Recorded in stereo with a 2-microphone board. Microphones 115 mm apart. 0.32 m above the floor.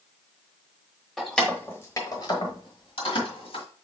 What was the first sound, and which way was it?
Keys jangling, centre (ahead or behind).